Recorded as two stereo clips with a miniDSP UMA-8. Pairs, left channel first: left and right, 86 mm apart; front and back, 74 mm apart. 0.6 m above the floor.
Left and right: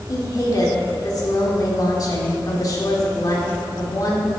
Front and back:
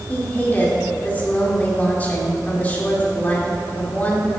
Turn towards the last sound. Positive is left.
turn(degrees=60)